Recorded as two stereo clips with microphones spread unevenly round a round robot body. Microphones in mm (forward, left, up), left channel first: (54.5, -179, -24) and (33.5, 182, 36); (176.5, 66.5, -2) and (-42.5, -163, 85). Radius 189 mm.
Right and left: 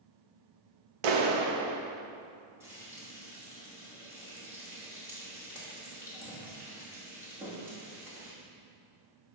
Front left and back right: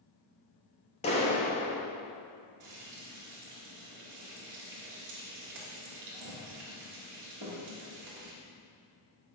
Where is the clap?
110° left, 1.1 m.